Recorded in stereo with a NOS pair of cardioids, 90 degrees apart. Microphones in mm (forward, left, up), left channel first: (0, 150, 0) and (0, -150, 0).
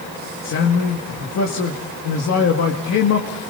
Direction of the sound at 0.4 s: 55° left.